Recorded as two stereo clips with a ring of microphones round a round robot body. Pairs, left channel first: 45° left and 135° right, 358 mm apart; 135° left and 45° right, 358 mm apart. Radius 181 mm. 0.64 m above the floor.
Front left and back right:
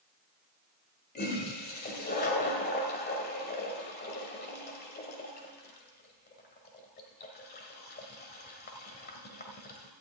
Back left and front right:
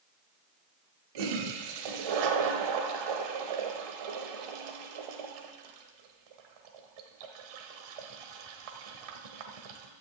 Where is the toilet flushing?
20° right, 1.5 m.